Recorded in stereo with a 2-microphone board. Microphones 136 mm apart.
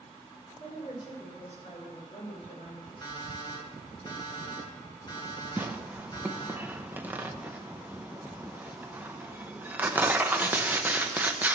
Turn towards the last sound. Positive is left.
turn(degrees=-15)  # may be behind; listen again after turning